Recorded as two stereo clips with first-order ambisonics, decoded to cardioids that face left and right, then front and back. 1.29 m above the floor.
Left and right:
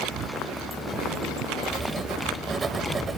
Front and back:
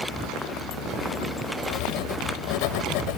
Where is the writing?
15° right.